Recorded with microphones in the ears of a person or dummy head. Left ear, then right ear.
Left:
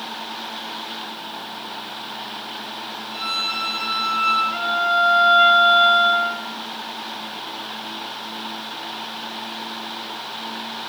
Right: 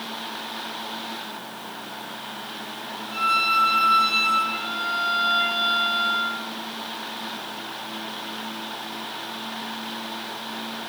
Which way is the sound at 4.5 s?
30° left (ahead or behind).